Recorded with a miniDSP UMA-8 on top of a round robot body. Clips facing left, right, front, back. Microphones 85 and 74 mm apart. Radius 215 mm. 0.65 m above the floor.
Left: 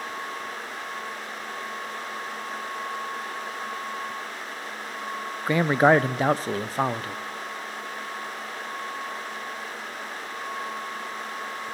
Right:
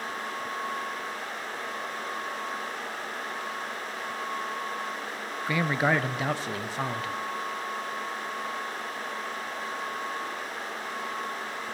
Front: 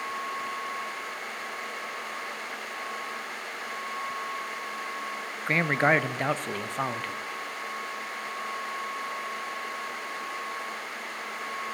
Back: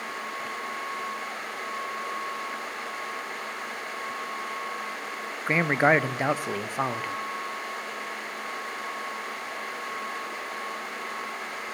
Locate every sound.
5.5 s a man speaking: 105° left, 0.5 m